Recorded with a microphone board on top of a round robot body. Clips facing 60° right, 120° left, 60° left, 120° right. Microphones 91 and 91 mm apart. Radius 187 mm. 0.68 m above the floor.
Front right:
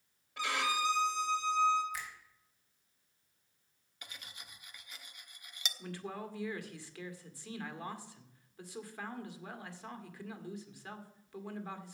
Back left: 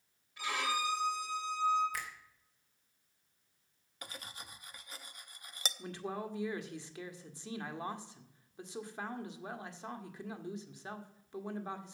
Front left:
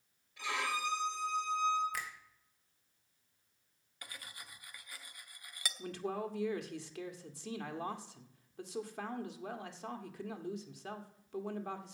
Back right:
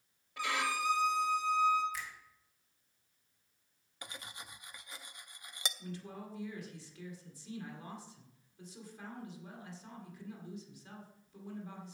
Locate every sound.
0.4 s a violin: 100° right, 3 m
1.9 s a finger snap: 90° left, 3 m
4.0 s cutlery clinking: 170° left, 0.7 m
5.8 s a man speaking: 50° left, 1.8 m